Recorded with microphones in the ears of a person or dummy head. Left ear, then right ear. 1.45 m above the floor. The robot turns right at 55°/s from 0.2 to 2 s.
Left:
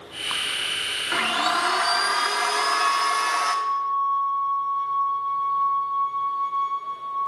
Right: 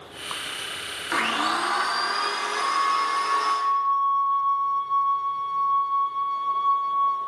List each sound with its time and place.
1.1 s a blender: 10° right, 1.1 m; by 3.5 s 35° left, 1.1 m
2.5 s a flute: 50° right (ahead or behind), 2 m